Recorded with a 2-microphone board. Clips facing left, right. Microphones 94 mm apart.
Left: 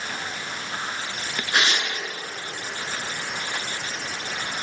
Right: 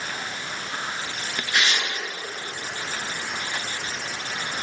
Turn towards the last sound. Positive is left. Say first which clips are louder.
# left 1 dB
turn(degrees=40)  # may be behind; listen again after turning